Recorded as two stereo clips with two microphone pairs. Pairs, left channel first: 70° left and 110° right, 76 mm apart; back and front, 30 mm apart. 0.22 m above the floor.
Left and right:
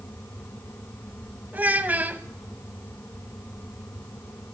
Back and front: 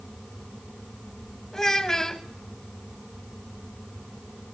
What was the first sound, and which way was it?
A child speaking, 135° right.